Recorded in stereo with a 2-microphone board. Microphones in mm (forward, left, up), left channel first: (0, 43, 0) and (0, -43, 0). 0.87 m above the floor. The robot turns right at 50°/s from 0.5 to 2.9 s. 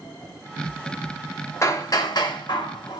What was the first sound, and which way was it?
Hammering, 40° left.